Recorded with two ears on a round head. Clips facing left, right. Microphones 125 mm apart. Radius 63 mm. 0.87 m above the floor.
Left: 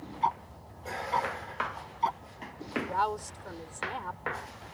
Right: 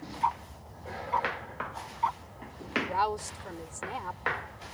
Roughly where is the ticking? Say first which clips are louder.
Even; left.